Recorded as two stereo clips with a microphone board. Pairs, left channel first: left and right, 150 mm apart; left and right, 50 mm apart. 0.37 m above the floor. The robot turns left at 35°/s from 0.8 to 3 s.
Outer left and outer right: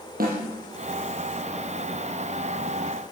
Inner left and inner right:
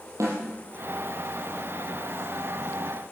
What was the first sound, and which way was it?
A snare drum, 80° right.